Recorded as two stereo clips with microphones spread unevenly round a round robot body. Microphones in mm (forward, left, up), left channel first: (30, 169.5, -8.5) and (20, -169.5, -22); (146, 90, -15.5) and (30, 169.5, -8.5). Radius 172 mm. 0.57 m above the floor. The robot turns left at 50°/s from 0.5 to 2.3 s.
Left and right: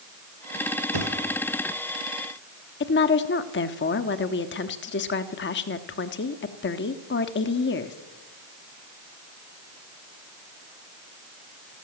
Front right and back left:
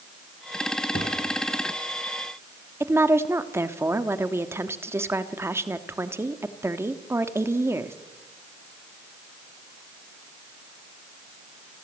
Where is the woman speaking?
90° left, 1.2 m.